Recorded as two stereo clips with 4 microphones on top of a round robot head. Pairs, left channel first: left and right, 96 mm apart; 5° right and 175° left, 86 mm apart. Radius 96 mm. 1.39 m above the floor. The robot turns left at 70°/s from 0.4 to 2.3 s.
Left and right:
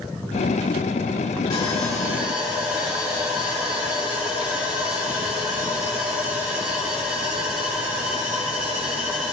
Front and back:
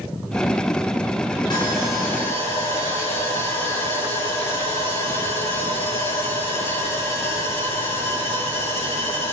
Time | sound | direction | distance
1.5 | sawing | 35° left | 6.5 m